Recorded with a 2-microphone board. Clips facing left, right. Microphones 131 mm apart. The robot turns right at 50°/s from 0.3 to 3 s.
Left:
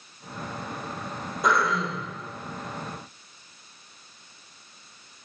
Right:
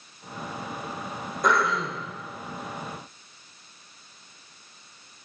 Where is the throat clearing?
175° left, 5.5 m; by 2.1 s 150° right, 5.5 m.